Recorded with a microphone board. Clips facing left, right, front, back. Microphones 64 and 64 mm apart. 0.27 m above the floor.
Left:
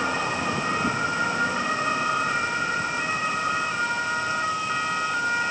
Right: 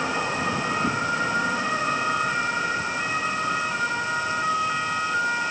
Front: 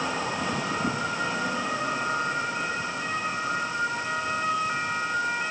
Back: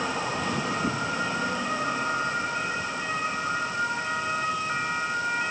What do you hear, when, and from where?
Only background noise.